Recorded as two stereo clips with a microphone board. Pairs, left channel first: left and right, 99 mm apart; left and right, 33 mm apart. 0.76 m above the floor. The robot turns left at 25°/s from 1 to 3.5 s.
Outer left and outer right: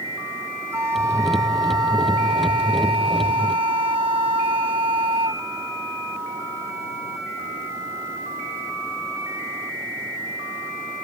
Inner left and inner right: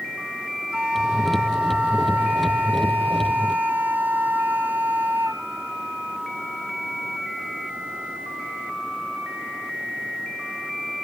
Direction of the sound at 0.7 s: 30° right.